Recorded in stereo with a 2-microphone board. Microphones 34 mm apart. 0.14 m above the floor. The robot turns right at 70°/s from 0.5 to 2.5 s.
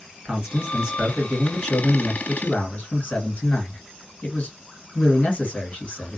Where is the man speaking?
45° right, 1.6 m; by 6.2 s 95° left, 1.6 m.